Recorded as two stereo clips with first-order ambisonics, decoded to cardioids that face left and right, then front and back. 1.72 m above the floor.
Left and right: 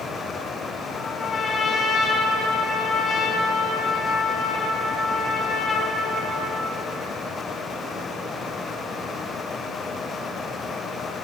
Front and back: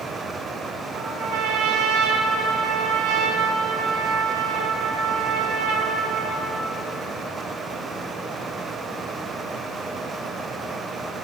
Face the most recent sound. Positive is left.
turn(degrees=160)